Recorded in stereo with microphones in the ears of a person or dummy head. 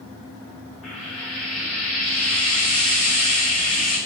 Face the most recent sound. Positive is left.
turn(degrees=85)